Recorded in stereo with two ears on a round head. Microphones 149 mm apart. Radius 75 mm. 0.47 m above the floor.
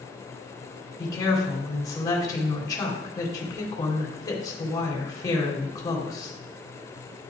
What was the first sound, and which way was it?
A woman speaking, 25° left (ahead or behind).